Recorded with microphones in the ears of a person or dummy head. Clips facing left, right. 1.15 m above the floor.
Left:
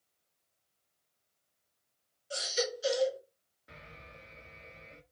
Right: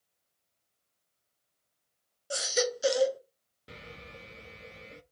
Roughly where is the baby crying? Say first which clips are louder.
Right 4 dB; right.